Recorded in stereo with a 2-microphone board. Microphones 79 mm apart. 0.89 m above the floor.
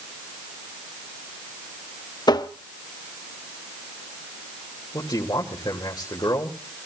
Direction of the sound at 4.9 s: 60° left (ahead or behind).